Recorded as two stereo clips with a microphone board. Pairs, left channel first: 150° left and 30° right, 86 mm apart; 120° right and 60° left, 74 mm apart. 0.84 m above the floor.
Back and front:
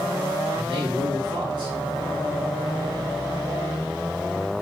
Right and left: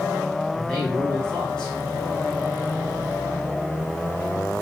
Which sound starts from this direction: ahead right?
A man speaking, at 0.5 s.